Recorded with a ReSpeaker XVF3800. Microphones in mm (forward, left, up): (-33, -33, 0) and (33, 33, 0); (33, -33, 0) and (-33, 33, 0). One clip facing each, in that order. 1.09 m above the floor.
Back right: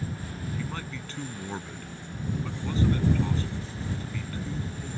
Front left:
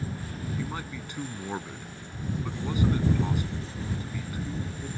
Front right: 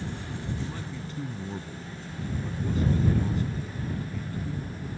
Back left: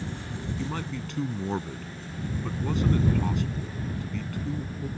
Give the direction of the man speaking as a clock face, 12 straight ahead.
8 o'clock.